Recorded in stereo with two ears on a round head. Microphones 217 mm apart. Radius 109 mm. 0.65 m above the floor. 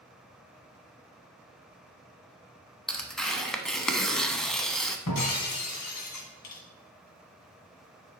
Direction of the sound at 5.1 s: 80° left.